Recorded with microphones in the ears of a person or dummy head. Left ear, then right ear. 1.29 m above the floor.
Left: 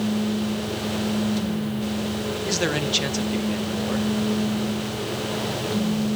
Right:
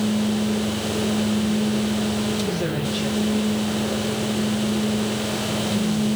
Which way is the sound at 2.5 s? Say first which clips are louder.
Left 2 dB; 65° left (ahead or behind).